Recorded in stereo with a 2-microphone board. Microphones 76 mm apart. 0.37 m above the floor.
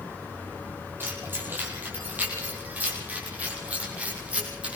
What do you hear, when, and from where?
1.0 s keys jangling: 25° right (ahead or behind), 7.5 m; by 4.8 s 15° right (ahead or behind), 9 m